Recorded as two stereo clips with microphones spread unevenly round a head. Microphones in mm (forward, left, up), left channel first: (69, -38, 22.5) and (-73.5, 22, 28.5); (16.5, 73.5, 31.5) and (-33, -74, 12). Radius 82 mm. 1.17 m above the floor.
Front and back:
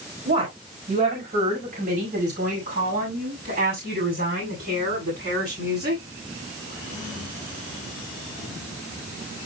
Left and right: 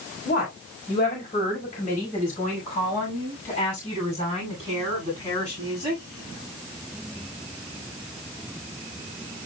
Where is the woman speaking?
115° left, 4 m; by 6.0 s 135° left, 9.5 m.